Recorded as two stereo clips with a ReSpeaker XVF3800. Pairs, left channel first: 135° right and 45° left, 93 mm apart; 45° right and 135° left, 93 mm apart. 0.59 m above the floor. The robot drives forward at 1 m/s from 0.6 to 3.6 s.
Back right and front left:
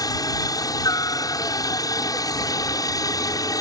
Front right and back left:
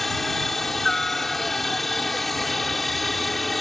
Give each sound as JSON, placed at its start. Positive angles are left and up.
{"t": 0.0, "sound": "a helicopter", "azimuth_deg": -130}